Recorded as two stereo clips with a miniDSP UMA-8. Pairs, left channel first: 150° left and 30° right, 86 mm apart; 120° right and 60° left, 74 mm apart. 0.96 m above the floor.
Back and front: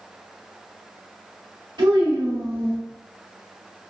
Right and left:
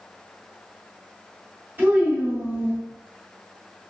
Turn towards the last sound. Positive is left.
turn(degrees=0)